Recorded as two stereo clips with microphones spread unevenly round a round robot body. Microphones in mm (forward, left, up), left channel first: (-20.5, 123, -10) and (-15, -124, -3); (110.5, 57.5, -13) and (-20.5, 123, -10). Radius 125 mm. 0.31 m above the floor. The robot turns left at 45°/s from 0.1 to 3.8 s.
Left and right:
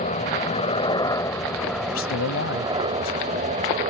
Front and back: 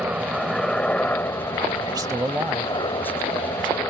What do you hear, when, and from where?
0.0 s a helicopter: 80° left; by 3.9 s 85° right
1.8 s a man speaking: 100° left; by 3.9 s 15° left